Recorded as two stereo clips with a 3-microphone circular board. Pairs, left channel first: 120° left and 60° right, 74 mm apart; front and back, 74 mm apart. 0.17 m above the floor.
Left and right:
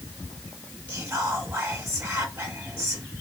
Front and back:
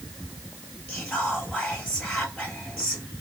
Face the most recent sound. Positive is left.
turn(degrees=-75)